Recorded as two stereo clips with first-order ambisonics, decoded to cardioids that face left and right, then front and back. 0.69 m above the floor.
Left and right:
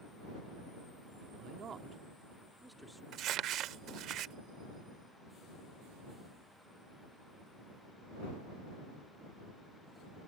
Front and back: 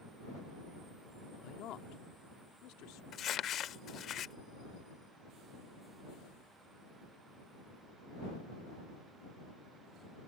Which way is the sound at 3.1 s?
50° right.